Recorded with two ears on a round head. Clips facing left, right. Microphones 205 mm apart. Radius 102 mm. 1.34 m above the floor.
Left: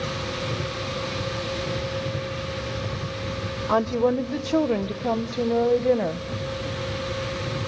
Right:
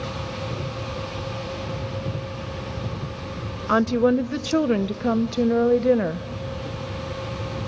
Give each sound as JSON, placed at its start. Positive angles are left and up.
{"t": 3.7, "sound": "a woman speaking", "side_deg": -15, "distance_m": 0.5}